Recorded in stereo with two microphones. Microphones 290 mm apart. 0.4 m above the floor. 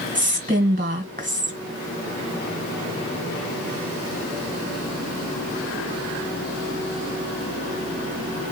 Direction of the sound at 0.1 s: 25° right (ahead or behind).